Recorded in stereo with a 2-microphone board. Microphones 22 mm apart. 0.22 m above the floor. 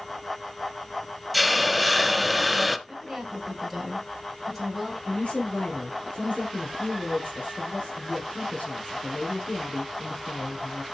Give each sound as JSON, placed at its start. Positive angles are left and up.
{"t": 1.3, "sound": "a hiss", "side_deg": -5, "distance_m": 0.7}
{"t": 2.9, "sound": "a woman speaking", "side_deg": 5, "distance_m": 3.5}
{"t": 5.0, "sound": "a woman speaking", "side_deg": 60, "distance_m": 4.0}